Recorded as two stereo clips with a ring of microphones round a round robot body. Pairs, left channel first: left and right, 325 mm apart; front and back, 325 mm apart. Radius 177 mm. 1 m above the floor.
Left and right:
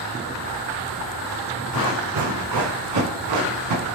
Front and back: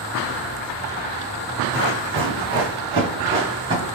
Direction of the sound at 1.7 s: 130° right.